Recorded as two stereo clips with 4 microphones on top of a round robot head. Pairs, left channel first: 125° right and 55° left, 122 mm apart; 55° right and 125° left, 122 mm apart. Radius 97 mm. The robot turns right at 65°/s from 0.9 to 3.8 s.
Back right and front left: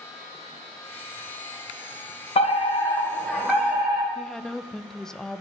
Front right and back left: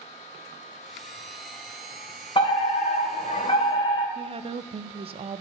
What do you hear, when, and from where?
2.4 s a fire alarm: 100° right, 2.5 m; by 4.0 s 5° right, 2.5 m
4.2 s a woman speaking: 150° left, 0.7 m